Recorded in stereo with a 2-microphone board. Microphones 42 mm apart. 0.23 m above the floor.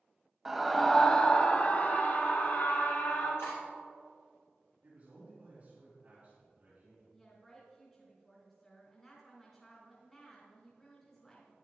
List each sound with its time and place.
0.5 s a scream: 10° right (ahead or behind), 0.9 m; by 3.3 s 60° left (ahead or behind), 2 m
3.4 s cutlery clinking: 70° left (ahead or behind), 3 m
4.8 s a man speaking: 35° right (ahead or behind), 3 m
7.1 s a woman speaking: 20° left (ahead or behind), 1.7 m